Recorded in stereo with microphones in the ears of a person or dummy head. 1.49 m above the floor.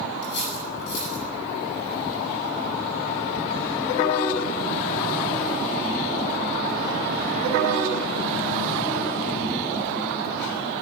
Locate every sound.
0.2 s cutlery clinking: 60° left (ahead or behind), 9.5 m